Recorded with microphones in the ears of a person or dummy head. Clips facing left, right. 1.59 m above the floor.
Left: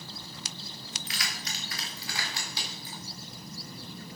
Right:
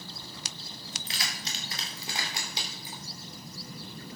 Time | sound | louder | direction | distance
0.9 | keys jangling | right 1 dB | 30° right (ahead or behind) | 3 m